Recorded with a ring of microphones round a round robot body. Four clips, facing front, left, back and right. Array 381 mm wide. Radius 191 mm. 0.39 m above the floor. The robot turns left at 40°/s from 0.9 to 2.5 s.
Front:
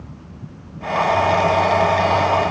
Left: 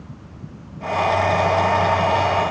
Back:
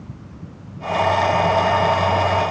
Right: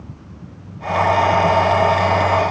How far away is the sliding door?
I don't hear a sliding door.